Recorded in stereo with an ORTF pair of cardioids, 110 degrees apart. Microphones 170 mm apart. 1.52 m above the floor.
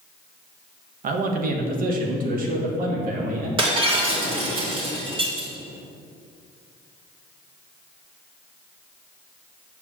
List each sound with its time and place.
1.0 s a man speaking: 55° right, 1.5 m
3.6 s breaking glass: 30° right, 3 m